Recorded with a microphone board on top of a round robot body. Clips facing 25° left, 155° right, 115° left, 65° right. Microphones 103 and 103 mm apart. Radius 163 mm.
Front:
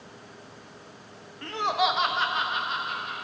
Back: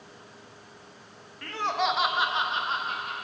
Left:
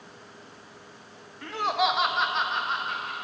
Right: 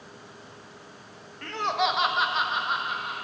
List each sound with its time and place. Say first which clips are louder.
1.4 s laughter: front 2 dB, left 1 dB; 45° left, 0.9 m; by 3.1 s 145° right, 1.1 m